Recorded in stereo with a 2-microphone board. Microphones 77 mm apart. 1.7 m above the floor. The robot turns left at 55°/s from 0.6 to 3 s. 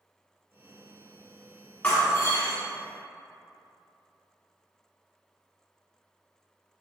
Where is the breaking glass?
145° left, 1.5 m; by 2.6 s 105° left, 1.5 m.